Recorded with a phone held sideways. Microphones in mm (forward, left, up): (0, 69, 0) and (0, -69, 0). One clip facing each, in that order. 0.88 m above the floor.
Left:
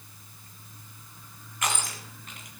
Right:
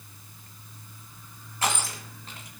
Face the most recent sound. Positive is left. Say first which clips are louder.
# right 3 dB
turn(degrees=-30)  # may be behind; listen again after turning